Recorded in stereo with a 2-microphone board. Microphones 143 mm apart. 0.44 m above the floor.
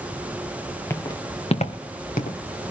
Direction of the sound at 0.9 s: 20° left (ahead or behind).